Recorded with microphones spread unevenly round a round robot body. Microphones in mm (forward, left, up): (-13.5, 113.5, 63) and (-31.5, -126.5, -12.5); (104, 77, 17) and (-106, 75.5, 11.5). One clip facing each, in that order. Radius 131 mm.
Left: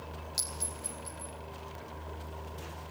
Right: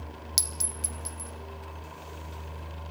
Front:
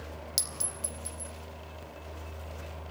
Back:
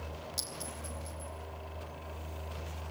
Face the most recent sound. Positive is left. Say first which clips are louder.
# right 1 dB, even
turn(degrees=-55)